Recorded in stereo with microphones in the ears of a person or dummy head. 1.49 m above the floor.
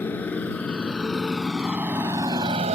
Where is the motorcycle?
15° left (ahead or behind); by 2.7 s 35° right (ahead or behind).